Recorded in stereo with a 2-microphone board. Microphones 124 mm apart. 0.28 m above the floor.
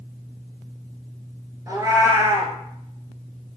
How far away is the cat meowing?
About 0.8 m.